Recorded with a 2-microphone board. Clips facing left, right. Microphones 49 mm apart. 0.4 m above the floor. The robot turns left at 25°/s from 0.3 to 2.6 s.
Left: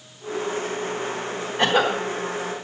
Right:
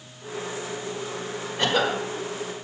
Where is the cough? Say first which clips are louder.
Left 3 dB; 20° left (ahead or behind), 1.3 m; by 2.0 s 10° left (ahead or behind), 1.3 m.